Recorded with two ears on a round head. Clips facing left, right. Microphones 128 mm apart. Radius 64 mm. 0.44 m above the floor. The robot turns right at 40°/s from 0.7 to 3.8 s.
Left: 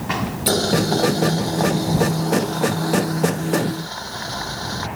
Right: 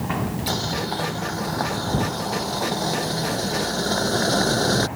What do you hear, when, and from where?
0.5 s boiling: 115° left; by 4.9 s 120° right